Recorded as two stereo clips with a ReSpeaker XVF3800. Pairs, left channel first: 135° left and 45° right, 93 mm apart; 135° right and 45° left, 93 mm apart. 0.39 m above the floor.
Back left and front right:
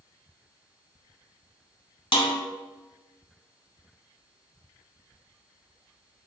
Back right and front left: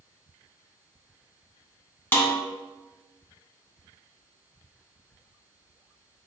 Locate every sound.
2.1 s a snare drum: 155° left, 0.9 m